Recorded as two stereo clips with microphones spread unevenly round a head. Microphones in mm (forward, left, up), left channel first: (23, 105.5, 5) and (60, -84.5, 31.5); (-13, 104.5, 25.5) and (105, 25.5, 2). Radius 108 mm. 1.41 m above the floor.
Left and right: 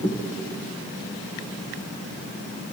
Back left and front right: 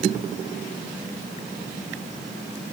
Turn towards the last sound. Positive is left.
No sound to turn to.